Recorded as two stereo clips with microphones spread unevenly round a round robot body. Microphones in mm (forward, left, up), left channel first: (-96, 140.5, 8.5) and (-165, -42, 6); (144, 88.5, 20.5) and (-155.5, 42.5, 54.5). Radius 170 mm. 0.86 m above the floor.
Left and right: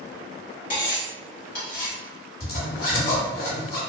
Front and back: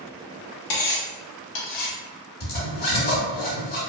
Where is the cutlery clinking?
35° left, 0.8 m.